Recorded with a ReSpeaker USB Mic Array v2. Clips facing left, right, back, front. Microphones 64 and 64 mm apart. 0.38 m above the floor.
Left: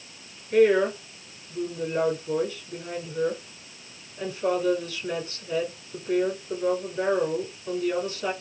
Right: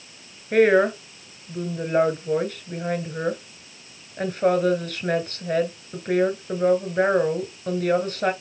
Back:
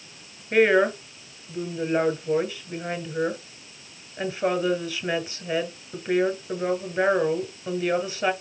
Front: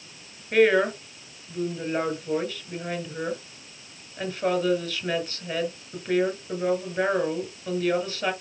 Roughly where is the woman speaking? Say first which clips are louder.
Right 2 dB, back 1 dB; right.